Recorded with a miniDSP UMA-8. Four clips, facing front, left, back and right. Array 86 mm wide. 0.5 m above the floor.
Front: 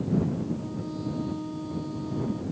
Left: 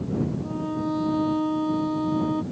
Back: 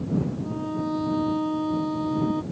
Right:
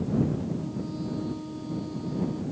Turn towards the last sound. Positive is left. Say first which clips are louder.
# left 5 dB, back 5 dB
turn(degrees=130)